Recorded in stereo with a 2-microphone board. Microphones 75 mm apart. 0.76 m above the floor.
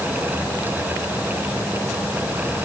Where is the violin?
I don't hear a violin.